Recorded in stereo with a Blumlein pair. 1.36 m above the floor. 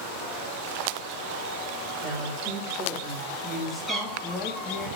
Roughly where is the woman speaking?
Ahead right.